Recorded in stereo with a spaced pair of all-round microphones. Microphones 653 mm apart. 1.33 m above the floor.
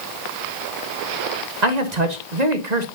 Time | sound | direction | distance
1.6 | a man speaking | 75° right (ahead or behind) | 1.3 m